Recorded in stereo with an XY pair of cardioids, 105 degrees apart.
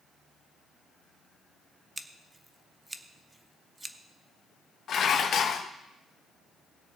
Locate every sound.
2.0 s scissors: 15° right, 0.9 m
4.9 s dishes clattering: 60° left, 0.9 m